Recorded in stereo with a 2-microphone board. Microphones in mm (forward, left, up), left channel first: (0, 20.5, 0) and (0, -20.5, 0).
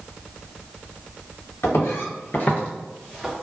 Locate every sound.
1.6 s footsteps: 80° left, 1.5 m; by 3.3 s 5° right (ahead or behind), 1.3 m